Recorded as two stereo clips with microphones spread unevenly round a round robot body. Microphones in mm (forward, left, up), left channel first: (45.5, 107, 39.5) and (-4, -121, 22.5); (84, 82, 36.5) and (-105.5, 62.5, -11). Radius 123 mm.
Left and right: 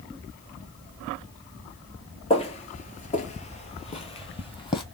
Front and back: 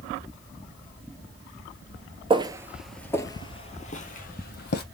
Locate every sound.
2.3 s footsteps: 120° left, 0.7 m; by 4.8 s 10° left, 1.4 m